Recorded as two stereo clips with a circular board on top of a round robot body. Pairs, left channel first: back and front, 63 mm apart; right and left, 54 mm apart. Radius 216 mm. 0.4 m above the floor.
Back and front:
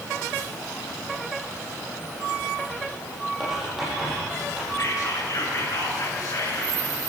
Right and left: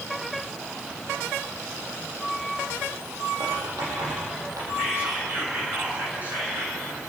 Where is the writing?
85° left, 9.5 m.